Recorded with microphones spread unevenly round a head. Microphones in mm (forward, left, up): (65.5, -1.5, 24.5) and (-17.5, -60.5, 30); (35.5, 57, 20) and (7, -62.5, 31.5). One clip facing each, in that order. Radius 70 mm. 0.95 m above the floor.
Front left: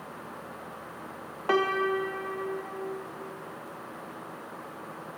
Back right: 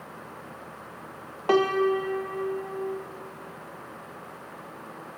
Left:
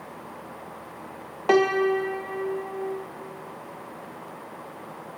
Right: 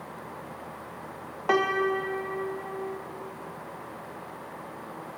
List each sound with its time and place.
1.5 s a piano: 145° left, 0.5 m